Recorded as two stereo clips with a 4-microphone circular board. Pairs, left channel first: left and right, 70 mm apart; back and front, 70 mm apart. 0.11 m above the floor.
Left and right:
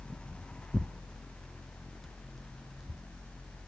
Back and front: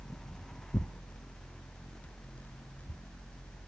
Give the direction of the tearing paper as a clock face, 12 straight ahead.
6 o'clock.